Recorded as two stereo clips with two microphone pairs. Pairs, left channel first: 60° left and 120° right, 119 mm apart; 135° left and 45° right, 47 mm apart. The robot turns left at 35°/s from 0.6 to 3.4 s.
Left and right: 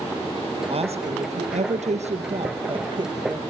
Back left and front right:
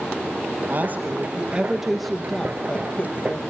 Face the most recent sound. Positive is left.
turn(degrees=175)